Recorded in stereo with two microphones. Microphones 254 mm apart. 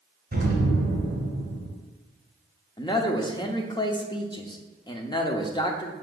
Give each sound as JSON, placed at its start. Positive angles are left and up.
{"t": 0.3, "sound": "an explosion", "side_deg": -40, "distance_m": 2.0}
{"t": 2.8, "sound": "a man speaking", "side_deg": 20, "distance_m": 0.7}